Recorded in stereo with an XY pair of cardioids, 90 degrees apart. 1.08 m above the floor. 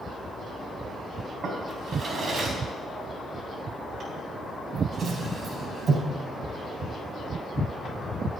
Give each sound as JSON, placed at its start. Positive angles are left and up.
{"t": 1.4, "sound": "a drawer", "azimuth_deg": -55, "distance_m": 4.0}